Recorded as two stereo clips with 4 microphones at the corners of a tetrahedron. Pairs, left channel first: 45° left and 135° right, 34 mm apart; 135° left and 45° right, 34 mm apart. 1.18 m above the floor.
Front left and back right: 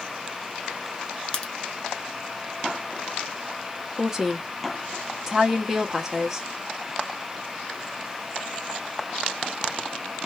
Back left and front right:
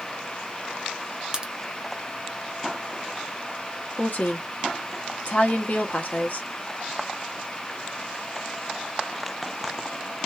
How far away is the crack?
About 0.5 m.